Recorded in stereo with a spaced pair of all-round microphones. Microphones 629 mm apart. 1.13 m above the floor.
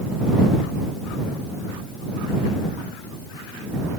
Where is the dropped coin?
No dropped coin in this recording.